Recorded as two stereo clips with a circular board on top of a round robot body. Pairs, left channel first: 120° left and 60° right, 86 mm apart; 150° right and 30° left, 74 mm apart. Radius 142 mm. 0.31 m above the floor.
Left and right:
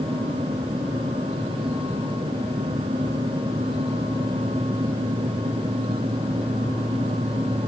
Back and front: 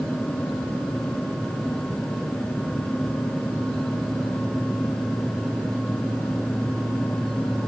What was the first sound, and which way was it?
Only background noise.